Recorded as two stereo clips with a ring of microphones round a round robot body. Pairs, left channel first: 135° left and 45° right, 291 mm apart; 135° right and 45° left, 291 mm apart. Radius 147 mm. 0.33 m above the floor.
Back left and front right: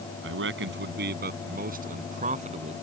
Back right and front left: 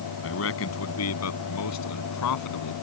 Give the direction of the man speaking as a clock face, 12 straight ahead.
3 o'clock.